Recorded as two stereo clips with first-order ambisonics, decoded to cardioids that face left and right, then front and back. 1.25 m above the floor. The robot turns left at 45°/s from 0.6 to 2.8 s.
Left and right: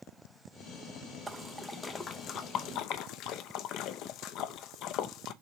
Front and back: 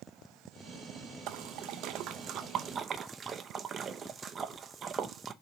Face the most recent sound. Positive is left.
turn(degrees=115)